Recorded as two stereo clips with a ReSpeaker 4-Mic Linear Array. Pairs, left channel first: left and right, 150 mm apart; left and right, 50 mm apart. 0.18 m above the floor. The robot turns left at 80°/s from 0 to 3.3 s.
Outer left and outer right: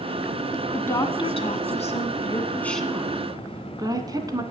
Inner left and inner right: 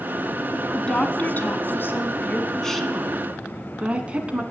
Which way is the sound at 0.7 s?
10° left (ahead or behind).